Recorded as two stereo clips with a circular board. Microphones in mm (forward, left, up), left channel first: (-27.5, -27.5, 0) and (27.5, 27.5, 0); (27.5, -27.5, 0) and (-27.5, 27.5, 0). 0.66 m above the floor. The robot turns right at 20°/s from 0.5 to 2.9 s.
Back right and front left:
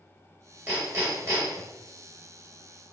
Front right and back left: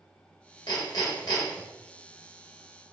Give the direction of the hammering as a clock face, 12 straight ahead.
1 o'clock.